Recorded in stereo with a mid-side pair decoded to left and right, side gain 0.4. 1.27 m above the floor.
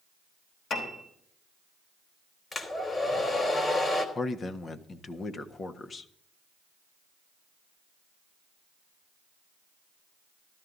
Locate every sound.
0.7 s a piano: 60° left, 4.5 m
2.5 s a hair dryer: 40° left, 3 m
4.2 s a man speaking: 45° left, 1.5 m